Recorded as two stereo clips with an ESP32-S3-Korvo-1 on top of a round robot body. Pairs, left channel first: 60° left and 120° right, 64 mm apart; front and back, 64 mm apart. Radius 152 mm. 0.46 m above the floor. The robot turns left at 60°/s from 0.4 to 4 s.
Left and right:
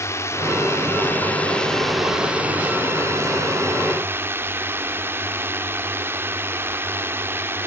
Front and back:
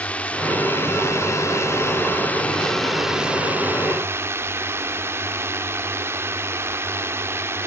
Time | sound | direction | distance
0.0 | a drone | 60° left | ?